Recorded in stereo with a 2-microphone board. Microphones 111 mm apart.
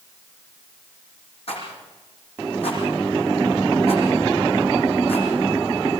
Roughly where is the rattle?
Left.